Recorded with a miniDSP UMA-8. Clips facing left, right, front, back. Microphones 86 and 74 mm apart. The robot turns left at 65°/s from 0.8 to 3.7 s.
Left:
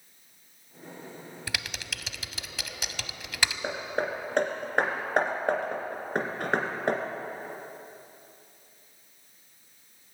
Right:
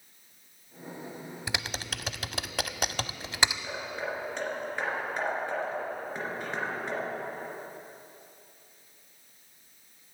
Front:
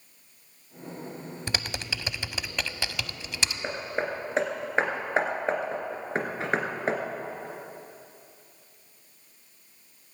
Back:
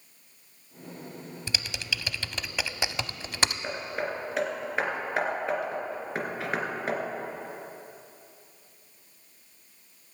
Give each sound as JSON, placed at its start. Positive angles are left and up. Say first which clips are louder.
{"t": 1.5, "sound": "typing on a keyboard", "louder": "right 2 dB, front 1 dB", "azimuth_deg": -25, "distance_m": 0.6}
{"t": 3.6, "sound": "hammering", "louder": "left 4 dB, front 2 dB", "azimuth_deg": 65, "distance_m": 2.0}